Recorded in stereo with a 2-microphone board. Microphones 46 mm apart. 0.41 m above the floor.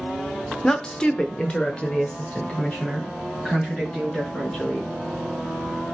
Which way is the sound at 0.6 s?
15° left (ahead or behind).